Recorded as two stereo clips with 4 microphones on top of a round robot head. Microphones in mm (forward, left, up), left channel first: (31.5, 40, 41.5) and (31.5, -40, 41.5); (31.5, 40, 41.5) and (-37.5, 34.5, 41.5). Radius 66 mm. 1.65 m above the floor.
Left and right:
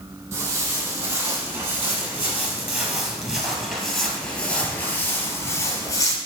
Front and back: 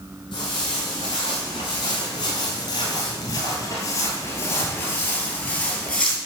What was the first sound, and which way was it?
Footsteps, 40° right.